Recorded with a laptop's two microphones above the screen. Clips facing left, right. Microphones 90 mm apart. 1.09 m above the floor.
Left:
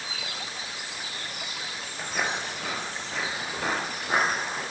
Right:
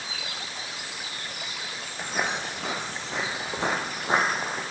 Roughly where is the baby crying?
No baby crying in this recording.